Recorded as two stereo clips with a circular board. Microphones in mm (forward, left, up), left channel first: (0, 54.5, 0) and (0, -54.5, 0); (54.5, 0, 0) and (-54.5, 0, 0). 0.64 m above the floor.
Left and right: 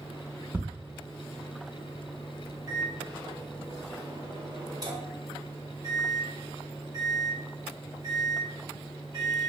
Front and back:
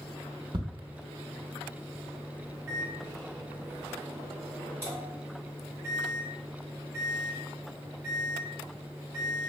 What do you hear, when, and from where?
0.5 s ticking: 160° right, 0.7 m
2.7 s a microwave: 120° right, 1.1 m